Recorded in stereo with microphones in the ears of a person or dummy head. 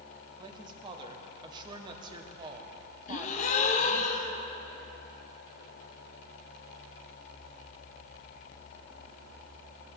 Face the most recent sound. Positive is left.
turn(degrees=45)  # may be behind; listen again after turning